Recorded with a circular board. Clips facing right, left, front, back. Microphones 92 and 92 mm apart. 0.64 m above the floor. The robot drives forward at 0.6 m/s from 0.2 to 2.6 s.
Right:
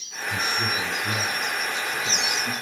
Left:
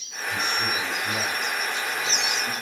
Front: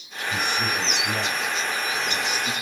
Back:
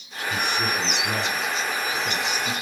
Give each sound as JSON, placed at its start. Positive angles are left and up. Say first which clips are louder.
{"t": 0.3, "sound": "a man speaking", "louder": "even, even", "azimuth_deg": -160, "distance_m": 5.0}